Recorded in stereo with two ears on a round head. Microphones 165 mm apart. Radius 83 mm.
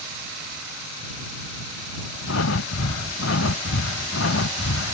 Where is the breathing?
85° left.